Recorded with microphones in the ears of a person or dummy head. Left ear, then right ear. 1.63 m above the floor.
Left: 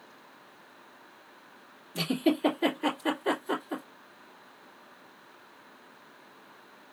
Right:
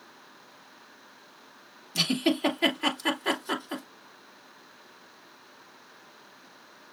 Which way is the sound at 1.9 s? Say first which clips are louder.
Right 2 dB; 25° right (ahead or behind).